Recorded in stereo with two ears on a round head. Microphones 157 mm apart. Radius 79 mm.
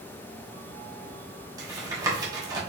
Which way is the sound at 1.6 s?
20° right (ahead or behind).